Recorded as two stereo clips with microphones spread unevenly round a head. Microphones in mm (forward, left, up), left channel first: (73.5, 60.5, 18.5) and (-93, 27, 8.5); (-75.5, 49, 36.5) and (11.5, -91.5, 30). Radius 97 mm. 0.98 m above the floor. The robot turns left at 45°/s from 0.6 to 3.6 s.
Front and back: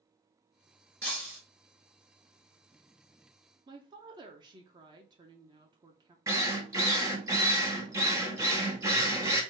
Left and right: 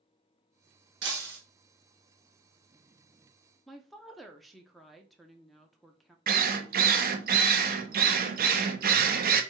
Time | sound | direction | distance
1.0 | breaking glass | 65° right | 2 m
3.7 | a woman speaking | 145° right | 0.7 m
6.3 | a drill | 90° right | 0.8 m